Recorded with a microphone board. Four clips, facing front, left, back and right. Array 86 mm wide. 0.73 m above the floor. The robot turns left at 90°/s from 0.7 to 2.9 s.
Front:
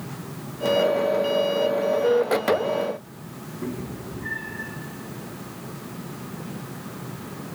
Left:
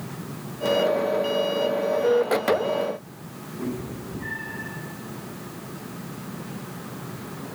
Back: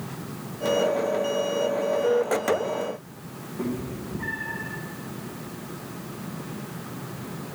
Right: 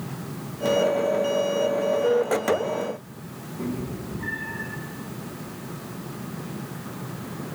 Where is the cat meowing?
Straight behind, 4 m.